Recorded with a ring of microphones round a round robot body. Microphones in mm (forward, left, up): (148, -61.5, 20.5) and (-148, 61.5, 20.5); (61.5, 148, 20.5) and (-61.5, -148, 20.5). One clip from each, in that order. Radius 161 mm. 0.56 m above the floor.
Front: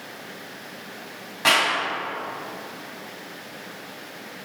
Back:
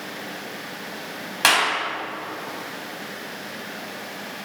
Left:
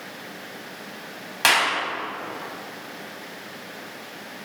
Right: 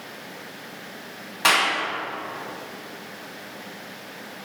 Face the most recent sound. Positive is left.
turn(degrees=130)